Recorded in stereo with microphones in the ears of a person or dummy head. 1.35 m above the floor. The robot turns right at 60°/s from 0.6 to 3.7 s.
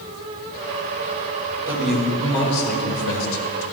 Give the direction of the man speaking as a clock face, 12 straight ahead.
1 o'clock.